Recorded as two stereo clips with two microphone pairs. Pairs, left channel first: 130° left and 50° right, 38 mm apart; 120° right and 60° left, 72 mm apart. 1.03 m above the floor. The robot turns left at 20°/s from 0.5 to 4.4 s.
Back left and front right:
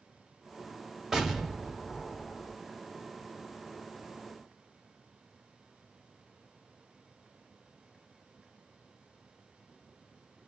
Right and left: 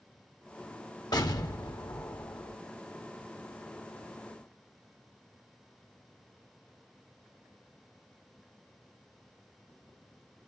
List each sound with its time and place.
1.1 s an explosion: 130° right, 1.0 m; by 2.6 s 155° right, 1.0 m